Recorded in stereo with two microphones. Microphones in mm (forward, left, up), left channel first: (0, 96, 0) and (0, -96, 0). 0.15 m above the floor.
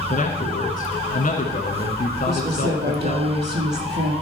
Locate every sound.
0.1 s a man speaking: 45° left (ahead or behind), 1.6 m
2.3 s a woman speaking: 60° right (ahead or behind), 4 m